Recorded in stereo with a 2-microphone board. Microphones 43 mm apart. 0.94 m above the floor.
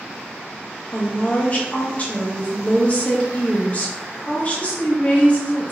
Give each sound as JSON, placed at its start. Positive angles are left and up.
{"t": 0.9, "sound": "a woman speaking", "side_deg": 30, "distance_m": 1.0}